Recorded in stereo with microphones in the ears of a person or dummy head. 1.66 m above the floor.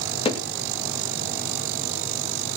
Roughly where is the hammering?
Left.